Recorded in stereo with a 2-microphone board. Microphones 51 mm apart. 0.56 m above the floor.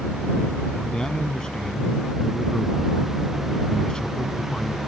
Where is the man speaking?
15° left (ahead or behind).